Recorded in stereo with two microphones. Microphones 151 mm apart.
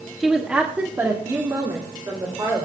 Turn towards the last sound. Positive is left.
turn(degrees=-25)  # may be behind; listen again after turning